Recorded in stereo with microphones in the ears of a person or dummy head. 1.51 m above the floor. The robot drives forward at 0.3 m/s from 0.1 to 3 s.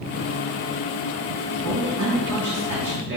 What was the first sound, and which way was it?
A man speaking, 60° right (ahead or behind).